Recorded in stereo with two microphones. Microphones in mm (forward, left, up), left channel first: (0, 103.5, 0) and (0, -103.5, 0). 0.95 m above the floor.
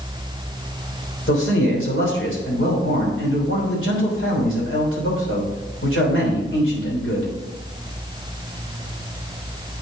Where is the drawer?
No drawer in this recording.